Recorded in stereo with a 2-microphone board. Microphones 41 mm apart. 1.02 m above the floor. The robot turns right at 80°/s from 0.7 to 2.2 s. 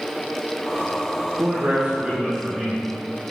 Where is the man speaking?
65° right, 1.0 m; by 2.8 s straight ahead, 1.0 m.